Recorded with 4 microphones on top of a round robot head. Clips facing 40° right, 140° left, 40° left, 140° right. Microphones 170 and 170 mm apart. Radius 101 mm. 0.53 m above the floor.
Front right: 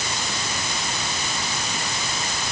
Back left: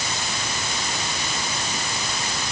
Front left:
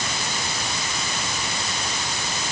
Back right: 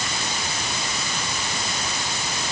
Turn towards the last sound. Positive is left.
No sound to turn to.